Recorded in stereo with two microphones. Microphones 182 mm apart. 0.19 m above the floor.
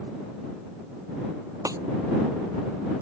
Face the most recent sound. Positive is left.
turn(degrees=-15)  # may be behind; listen again after turning